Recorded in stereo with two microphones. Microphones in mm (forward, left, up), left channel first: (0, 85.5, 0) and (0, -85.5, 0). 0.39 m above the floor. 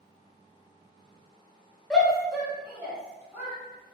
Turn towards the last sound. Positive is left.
turn(degrees=-15)  # may be behind; listen again after turning